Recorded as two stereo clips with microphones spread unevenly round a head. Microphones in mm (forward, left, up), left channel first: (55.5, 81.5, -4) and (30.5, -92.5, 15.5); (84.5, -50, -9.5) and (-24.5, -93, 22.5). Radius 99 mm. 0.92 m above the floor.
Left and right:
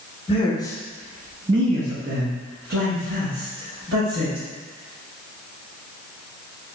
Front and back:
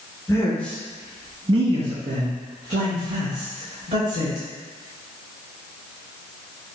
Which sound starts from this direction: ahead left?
A man speaking, at 0.3 s.